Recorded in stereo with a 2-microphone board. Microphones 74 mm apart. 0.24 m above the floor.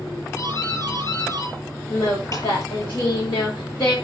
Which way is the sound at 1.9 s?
80° left.